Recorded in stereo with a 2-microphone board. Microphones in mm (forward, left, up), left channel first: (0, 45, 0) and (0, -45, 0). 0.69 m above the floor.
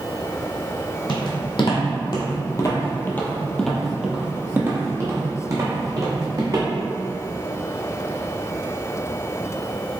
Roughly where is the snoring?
No snoring in this recording.